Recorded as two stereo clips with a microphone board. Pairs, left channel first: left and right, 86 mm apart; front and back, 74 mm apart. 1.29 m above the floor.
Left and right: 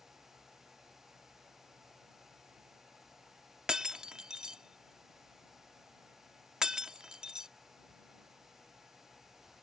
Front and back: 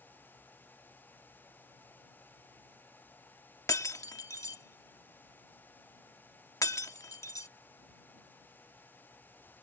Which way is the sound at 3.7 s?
10° right.